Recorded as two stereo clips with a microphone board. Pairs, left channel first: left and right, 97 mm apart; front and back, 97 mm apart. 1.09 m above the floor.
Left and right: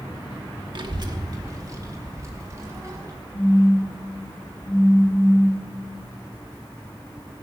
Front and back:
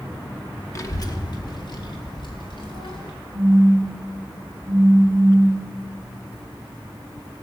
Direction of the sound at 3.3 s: 75° left.